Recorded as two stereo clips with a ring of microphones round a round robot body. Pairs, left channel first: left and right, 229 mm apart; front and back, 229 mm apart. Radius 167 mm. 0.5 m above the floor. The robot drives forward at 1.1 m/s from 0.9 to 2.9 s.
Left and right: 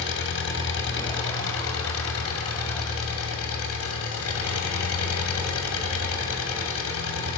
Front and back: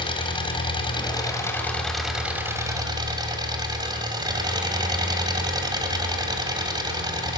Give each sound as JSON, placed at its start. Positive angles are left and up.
{"t": 0.0, "sound": "an engine running", "azimuth_deg": 65, "distance_m": 3.0}